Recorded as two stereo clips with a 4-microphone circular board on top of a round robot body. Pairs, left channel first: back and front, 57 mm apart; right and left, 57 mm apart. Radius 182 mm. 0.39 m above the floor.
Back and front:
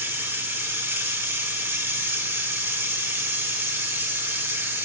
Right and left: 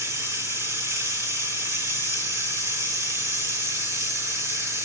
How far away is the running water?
About 3 m.